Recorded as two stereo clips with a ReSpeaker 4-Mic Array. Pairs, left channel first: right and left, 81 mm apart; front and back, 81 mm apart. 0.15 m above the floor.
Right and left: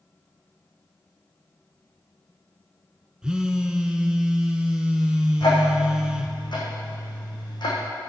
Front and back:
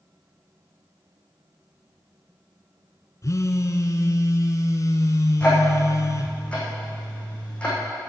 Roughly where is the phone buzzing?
Ahead.